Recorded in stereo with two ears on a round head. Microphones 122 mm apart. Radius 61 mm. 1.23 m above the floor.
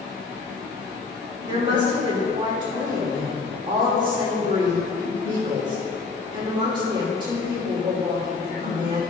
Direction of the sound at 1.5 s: 35° right (ahead or behind).